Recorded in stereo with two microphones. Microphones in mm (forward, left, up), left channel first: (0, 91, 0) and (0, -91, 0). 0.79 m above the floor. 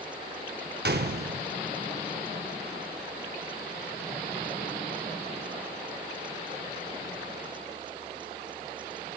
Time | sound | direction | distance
0.8 | a gunshot | 65° right (ahead or behind) | 0.6 m